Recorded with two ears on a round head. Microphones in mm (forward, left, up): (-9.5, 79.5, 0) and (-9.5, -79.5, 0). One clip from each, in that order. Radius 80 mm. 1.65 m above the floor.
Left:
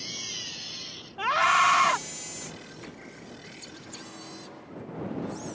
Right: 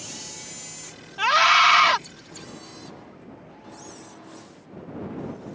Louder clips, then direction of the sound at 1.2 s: Right 5 dB; 75° right (ahead or behind).